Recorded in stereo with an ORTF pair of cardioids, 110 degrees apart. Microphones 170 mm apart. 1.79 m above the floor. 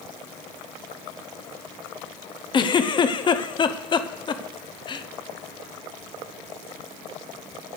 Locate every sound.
2.5 s a giggle: 30° left, 0.8 m